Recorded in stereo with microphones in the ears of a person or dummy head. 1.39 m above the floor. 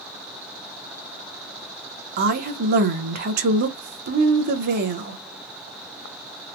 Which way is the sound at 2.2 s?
50° right (ahead or behind).